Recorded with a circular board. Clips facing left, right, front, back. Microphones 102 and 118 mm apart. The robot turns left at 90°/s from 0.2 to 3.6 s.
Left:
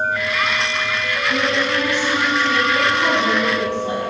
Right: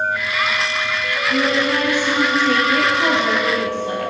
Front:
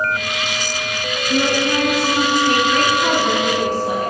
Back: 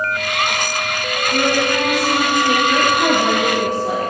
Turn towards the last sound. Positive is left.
turn(degrees=160)